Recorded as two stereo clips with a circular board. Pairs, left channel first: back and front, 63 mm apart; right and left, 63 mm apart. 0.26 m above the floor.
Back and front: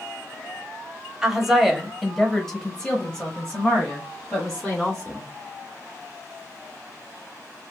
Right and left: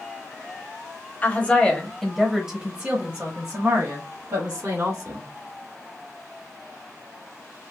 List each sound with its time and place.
1.2 s a woman speaking: 75° right, 1.0 m; by 5.2 s 110° left, 1.9 m